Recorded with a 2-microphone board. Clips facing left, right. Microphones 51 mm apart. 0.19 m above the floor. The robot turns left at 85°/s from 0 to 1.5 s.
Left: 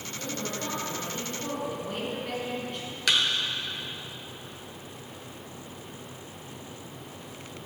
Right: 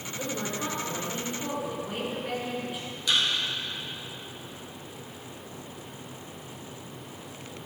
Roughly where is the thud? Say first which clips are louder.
Left 1 dB; left.